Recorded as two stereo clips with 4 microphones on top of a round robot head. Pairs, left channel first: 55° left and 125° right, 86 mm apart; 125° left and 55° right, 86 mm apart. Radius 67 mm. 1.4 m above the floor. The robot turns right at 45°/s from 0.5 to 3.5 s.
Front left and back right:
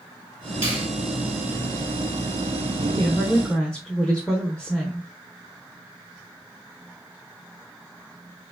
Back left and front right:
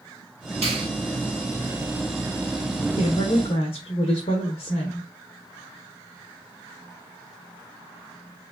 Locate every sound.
0.6 s a finger snap: 60° right, 3 m; by 0.9 s 50° right, 3 m
3.0 s a woman speaking: 110° left, 1.1 m; by 5.1 s 135° left, 1.1 m